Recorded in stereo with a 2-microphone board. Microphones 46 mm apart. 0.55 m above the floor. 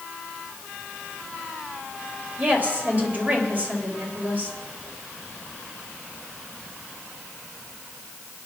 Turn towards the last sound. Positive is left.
turn(degrees=-40)  # may be behind; listen again after turning